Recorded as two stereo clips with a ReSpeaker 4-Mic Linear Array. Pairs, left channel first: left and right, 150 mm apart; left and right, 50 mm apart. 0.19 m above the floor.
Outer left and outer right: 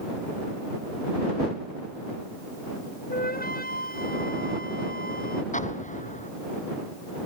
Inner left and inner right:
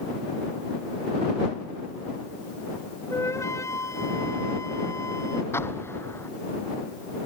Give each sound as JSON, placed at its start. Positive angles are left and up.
{"t": 3.1, "sound": "a flute", "side_deg": 85}
{"t": 5.5, "sound": "an explosion", "side_deg": 55}